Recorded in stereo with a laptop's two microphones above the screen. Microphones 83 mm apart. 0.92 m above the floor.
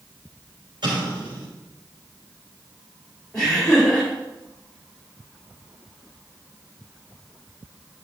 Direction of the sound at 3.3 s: 10° left (ahead or behind).